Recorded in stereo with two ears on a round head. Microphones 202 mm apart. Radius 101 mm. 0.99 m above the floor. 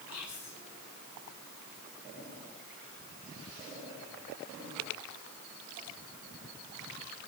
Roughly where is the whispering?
Left.